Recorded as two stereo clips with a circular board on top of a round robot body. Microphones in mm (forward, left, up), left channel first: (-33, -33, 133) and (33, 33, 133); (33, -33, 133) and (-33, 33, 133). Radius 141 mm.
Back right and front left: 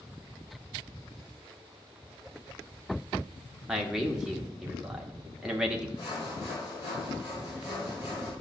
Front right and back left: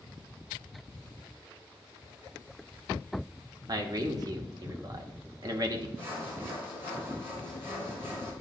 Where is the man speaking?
125° left, 1.0 m.